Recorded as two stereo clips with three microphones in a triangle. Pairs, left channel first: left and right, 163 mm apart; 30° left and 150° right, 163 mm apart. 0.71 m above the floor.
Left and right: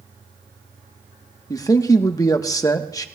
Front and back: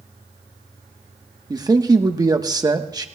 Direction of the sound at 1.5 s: 150° left.